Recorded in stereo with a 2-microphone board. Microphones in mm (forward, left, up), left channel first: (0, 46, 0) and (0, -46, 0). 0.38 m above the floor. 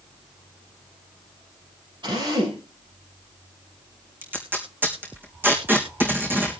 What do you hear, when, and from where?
2.0 s a drill: 55° right (ahead or behind), 7 m
4.2 s tape being pulled: 20° right (ahead or behind), 3.5 m